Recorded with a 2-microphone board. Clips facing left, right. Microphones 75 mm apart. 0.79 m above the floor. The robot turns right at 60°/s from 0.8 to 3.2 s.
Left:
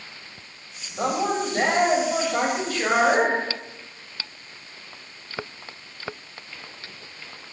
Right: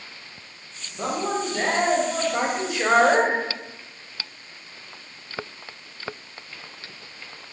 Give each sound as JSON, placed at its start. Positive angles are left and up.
{"t": 1.0, "sound": "a man speaking", "azimuth_deg": 90, "distance_m": 3.5}